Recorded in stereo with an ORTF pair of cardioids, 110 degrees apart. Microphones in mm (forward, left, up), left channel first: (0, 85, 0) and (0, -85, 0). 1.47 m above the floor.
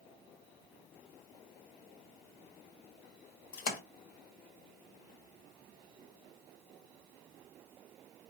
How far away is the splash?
About 0.9 m.